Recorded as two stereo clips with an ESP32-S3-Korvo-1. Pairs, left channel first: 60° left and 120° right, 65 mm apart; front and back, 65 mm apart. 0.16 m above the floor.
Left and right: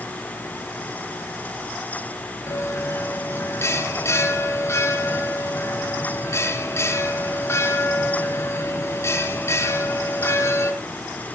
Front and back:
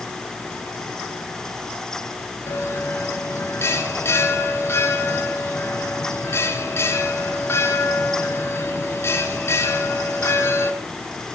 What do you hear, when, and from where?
2.5 s a bell: 35° left, 2.5 m